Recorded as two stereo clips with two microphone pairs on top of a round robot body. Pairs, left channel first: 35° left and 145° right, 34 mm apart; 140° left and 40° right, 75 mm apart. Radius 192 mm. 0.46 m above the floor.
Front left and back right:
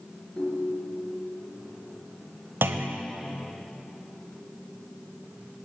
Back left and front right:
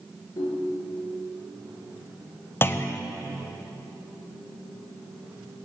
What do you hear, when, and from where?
0.4 s a ringtone: 105° left, 6 m
2.6 s a clunk: 160° right, 1.4 m